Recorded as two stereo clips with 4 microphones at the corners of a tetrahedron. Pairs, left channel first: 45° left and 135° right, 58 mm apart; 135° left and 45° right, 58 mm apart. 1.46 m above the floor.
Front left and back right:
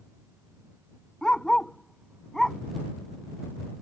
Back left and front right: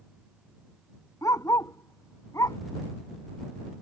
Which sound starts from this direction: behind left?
A dog barking, at 1.2 s.